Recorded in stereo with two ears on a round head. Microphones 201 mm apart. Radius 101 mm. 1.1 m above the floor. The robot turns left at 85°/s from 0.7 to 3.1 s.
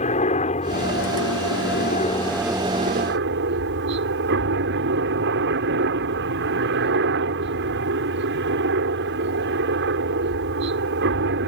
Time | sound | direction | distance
0.0 | a helicopter | 145° left | ?